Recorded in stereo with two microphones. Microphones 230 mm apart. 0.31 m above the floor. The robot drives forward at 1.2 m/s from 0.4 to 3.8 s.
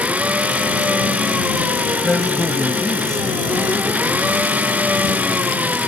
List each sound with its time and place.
0.0 s an engine running: 5° right (ahead or behind)
2.0 s a man speaking: 5° left (ahead or behind); by 3.5 s centre (ahead or behind)